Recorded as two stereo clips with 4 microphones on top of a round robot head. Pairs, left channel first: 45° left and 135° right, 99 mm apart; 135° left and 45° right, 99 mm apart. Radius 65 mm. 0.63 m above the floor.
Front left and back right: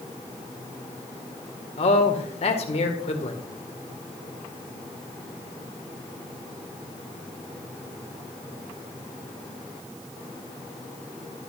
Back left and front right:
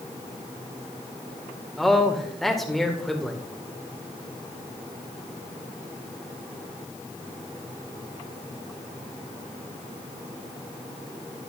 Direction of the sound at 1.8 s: 45° left.